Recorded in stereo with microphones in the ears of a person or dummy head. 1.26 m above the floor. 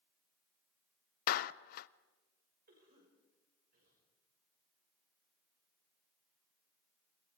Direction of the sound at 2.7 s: 50° right (ahead or behind).